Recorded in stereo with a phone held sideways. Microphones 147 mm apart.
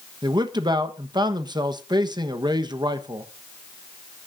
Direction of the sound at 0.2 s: 30° right (ahead or behind).